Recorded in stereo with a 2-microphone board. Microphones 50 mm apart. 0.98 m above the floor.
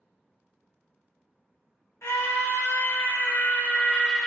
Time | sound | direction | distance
2.0 | a scream | 60° left (ahead or behind) | 1.4 m